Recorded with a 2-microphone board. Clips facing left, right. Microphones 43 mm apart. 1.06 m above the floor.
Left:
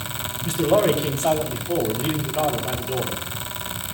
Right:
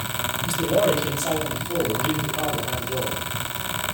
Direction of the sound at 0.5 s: 55° left (ahead or behind).